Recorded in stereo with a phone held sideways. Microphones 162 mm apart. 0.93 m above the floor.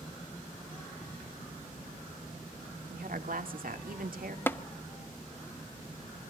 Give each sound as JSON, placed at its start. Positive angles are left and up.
{"t": 2.9, "sound": "a woman speaking", "side_deg": -70, "distance_m": 2.0}
{"t": 4.5, "sound": "tapping", "side_deg": 15, "distance_m": 0.8}